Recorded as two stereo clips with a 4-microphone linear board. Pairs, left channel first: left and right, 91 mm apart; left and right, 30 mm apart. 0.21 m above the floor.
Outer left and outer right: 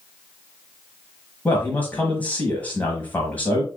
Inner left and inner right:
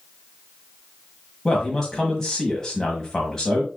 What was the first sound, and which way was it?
A man speaking, 20° left (ahead or behind).